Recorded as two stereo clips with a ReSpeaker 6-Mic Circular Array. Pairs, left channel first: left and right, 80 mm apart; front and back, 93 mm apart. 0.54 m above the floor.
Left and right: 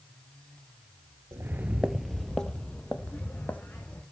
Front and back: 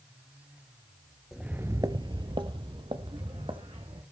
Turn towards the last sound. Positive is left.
turn(degrees=160)